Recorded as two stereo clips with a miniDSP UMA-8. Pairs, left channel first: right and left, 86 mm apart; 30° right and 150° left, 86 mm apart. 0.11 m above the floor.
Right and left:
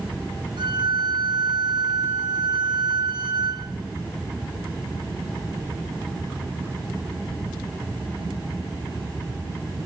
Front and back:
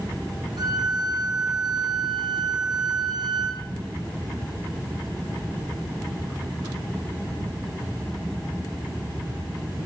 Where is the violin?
115° left, 5 m.